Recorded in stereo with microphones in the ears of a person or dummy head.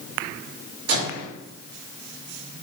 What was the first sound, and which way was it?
A microwave, 85° right.